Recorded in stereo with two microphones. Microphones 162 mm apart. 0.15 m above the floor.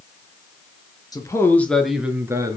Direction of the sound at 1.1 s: 25° left (ahead or behind).